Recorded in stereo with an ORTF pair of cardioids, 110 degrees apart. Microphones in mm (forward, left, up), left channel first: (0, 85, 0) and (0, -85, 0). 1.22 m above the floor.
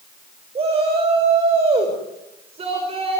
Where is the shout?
35° right, 6 m.